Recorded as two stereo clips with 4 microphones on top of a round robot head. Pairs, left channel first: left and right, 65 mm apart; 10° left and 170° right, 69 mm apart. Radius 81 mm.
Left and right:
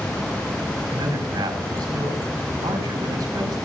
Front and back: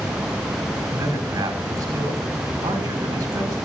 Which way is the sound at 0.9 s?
125° right.